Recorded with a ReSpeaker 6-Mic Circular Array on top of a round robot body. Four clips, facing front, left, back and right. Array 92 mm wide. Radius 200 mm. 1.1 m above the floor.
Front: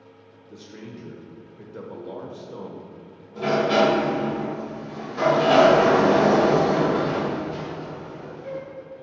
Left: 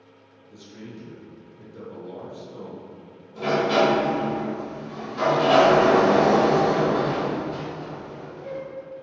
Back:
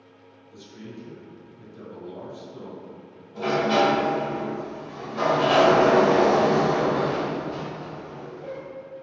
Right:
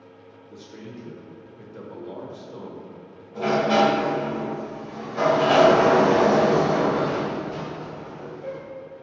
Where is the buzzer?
No buzzer in this recording.